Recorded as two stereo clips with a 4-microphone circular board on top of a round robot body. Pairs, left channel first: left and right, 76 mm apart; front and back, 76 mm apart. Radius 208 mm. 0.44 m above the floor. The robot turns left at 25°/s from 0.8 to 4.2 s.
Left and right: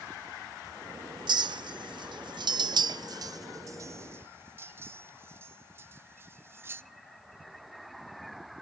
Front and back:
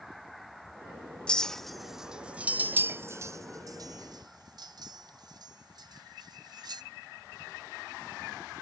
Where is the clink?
75° right, 0.5 m; by 6.8 s 150° right, 0.5 m.